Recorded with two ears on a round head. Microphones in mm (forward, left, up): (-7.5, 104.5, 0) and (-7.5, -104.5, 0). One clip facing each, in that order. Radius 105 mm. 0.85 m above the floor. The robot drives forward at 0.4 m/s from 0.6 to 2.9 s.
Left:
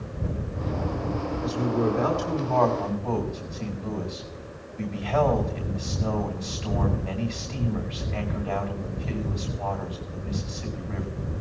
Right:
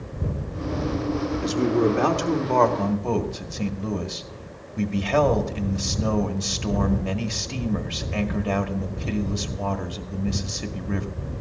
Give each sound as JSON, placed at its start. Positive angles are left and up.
{"t": 1.4, "sound": "a man speaking", "side_deg": -65, "distance_m": 1.9}